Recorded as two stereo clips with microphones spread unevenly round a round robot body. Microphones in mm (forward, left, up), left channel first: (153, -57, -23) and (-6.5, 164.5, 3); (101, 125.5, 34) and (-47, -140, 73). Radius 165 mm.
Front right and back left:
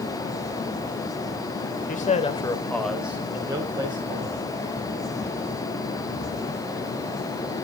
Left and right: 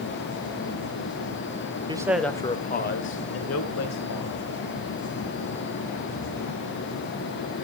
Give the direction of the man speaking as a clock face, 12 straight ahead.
1 o'clock.